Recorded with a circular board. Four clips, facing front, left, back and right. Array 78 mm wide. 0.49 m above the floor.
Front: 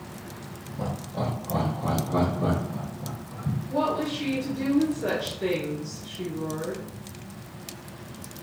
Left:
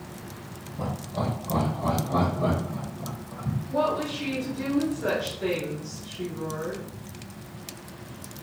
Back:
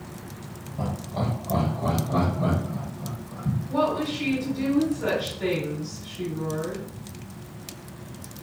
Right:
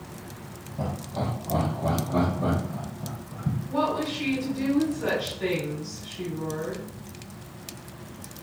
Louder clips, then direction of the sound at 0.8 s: Even, back 1 dB; 155° right.